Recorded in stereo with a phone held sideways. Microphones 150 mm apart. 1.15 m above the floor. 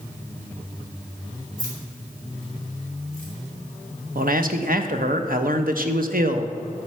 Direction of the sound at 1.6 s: 70° right (ahead or behind).